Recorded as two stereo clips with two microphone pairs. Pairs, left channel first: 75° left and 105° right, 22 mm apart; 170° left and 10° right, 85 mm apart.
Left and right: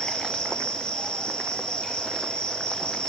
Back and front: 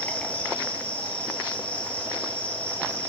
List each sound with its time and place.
0.0 s an insect: 100° left, 1.3 m